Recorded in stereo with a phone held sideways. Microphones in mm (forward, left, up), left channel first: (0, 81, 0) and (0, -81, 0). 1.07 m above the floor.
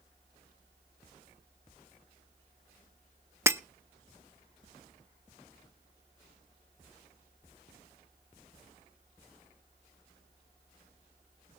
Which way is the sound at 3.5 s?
15° right (ahead or behind).